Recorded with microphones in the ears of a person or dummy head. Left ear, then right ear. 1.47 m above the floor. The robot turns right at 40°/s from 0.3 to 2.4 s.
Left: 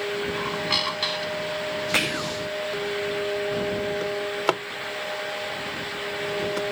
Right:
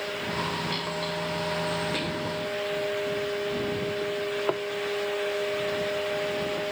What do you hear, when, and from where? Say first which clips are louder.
0.3 s a squeak: left 6 dB; 25° left; by 1.6 s 75° left
1.9 s whispering: left 5 dB; 50° left (ahead or behind); by 2.4 s 35° left (ahead or behind)
4.0 s a drawer: left 3 dB; 75° left (ahead or behind)